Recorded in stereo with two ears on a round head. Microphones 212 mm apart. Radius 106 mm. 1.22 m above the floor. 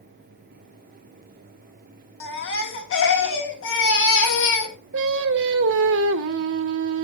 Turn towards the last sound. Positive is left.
turn(degrees=-60)  # may be behind; listen again after turning